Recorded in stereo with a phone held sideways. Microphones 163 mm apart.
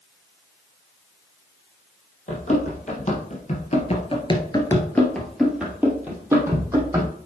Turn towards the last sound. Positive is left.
turn(degrees=-20)  # may be behind; listen again after turning